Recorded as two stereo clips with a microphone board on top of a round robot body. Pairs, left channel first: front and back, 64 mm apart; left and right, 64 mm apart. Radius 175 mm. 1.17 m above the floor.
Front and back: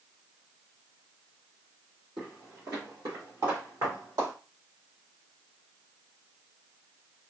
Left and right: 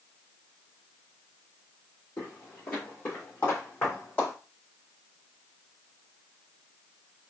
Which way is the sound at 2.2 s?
145° left.